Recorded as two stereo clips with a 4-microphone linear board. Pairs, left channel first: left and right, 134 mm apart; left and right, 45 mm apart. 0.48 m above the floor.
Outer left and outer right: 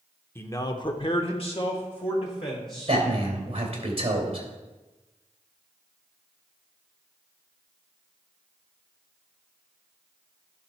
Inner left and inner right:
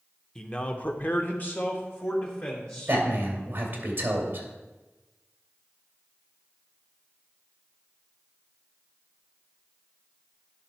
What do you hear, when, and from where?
0.3 s a man speaking: 20° left (ahead or behind), 0.8 m; by 3.0 s 35° left (ahead or behind), 2.5 m
2.9 s a man speaking: 45° right (ahead or behind), 2 m